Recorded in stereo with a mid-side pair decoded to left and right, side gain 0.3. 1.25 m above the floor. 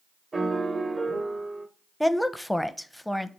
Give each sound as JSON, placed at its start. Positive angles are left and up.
{"t": 0.3, "sound": "a piano", "azimuth_deg": -40, "distance_m": 1.8}
{"t": 2.0, "sound": "a woman speaking", "azimuth_deg": 10, "distance_m": 1.0}